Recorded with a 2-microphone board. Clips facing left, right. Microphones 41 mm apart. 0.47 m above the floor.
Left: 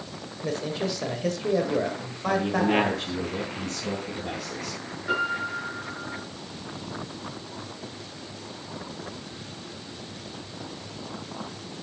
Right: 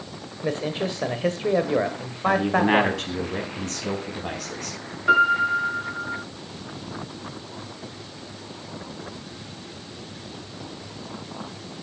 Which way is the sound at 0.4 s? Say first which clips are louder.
Right 3 dB; 35° right (ahead or behind).